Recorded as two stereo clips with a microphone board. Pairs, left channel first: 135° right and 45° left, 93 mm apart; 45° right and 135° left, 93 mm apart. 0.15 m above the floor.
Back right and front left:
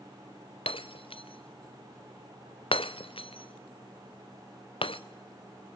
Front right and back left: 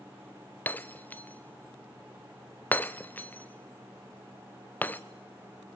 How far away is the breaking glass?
About 1.0 m.